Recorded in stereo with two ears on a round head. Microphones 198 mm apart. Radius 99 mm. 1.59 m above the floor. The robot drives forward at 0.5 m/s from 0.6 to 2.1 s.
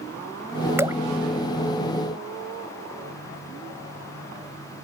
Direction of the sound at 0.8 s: 10° right (ahead or behind).